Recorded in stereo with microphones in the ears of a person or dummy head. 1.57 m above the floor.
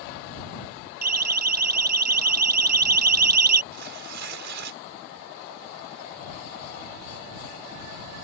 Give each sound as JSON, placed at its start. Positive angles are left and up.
{"t": 1.0, "sound": "a siren", "side_deg": -60}
{"t": 3.7, "sound": "tearing paper", "side_deg": -70}